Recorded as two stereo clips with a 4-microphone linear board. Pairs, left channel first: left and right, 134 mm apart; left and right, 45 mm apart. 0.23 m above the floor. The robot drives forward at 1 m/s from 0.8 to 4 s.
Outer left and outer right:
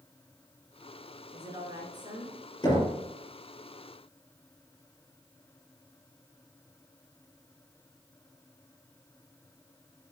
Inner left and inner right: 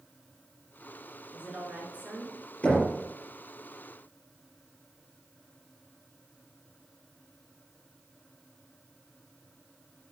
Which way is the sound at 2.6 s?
30° left (ahead or behind).